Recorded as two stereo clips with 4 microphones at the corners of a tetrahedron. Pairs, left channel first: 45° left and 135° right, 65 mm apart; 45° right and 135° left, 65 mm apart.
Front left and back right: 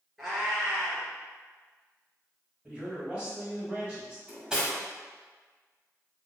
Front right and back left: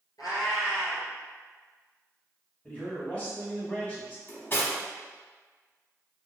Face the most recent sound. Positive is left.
turn(degrees=-65)